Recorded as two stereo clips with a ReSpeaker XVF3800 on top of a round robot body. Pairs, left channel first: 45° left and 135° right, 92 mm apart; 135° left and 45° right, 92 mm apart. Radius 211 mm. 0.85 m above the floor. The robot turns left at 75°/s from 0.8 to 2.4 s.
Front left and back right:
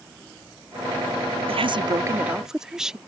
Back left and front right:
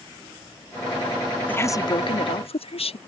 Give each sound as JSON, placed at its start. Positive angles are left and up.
{"t": 1.5, "sound": "a woman speaking", "azimuth_deg": -150}